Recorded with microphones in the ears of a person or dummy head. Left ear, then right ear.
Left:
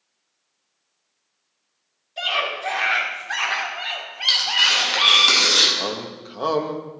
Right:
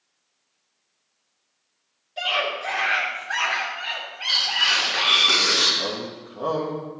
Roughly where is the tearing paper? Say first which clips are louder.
Left 3 dB; left.